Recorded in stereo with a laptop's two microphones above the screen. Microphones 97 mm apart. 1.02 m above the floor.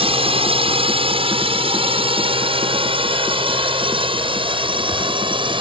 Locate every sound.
0.0 s a drone: 65° right (ahead or behind); by 5.6 s 55° right (ahead or behind)